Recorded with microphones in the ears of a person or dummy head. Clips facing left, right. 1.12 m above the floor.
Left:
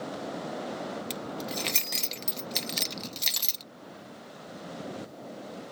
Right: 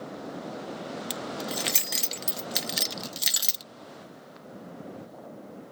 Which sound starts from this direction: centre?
Keys jangling, at 1.1 s.